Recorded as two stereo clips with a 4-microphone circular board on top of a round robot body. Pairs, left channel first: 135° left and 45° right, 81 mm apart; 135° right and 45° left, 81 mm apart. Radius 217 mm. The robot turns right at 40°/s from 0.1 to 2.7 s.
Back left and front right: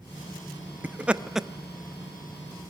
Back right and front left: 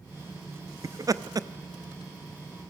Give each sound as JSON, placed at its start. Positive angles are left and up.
{"t": 0.8, "sound": "laughter", "azimuth_deg": 15, "distance_m": 1.1}